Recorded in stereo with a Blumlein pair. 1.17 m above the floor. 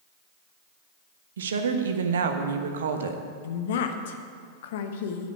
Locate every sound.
1.4 s a woman speaking: 65° right, 1.2 m
3.4 s a woman speaking: 55° left, 1.2 m